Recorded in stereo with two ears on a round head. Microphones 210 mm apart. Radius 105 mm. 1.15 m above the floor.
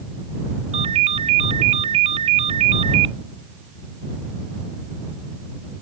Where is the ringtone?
30° right (ahead or behind).